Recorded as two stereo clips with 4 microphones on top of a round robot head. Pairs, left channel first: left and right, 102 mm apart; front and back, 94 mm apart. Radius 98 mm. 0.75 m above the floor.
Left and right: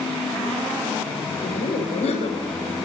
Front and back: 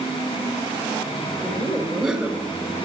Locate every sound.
1.4 s laughter: 95° left, 3 m